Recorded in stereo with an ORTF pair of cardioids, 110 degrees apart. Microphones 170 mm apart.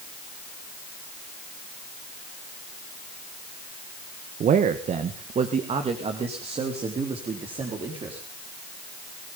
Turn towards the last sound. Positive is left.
turn(degrees=-35)